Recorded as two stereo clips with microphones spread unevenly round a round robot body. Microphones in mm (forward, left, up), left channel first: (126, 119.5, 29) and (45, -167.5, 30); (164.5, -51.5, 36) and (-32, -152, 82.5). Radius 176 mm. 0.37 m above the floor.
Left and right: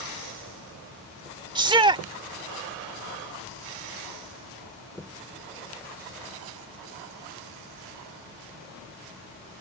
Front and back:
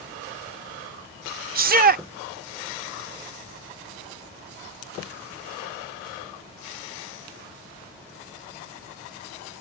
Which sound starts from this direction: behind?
A shout, at 1.6 s.